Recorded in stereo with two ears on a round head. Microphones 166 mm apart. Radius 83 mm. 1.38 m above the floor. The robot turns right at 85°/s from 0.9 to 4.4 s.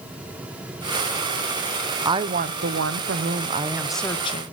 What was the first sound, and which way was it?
A woman speaking, 160° right.